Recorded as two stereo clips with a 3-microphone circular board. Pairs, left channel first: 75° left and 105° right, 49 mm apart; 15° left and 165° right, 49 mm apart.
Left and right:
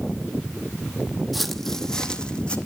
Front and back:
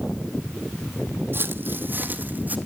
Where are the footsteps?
165° left, 1.2 m; by 2.6 s 140° left, 1.8 m.